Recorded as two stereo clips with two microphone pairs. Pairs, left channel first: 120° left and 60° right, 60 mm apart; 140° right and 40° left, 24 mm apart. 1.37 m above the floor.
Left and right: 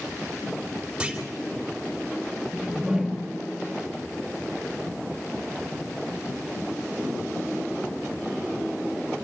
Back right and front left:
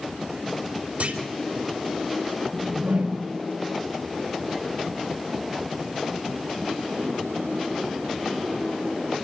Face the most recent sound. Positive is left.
turn(degrees=25)